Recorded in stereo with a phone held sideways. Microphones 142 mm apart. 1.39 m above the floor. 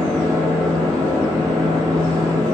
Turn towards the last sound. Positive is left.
turn(degrees=5)  # may be behind; listen again after turning